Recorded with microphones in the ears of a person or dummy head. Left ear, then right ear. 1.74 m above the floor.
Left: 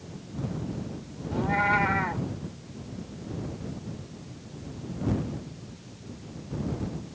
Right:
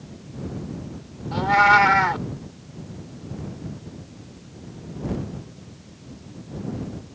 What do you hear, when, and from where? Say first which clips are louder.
1.3 s a cat meowing: right 9 dB; 50° right (ahead or behind)